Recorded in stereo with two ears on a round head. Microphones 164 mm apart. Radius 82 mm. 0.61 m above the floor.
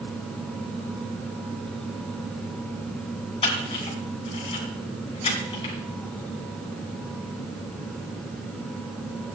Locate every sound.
3.4 s a camera shutter: 30° left (ahead or behind), 3.5 m